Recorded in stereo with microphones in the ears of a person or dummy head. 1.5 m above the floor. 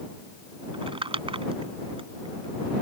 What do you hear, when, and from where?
0.7 s crumpling: 25° right (ahead or behind)